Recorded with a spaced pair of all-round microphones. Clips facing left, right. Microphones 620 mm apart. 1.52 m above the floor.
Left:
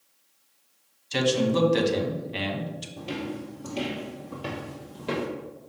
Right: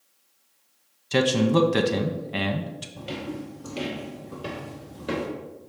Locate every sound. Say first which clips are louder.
1.1 s a man speaking: right 3 dB; 75° right (ahead or behind), 0.8 m
3.0 s footsteps: even; 15° right (ahead or behind), 1.7 m; by 5.3 s 35° left (ahead or behind), 2 m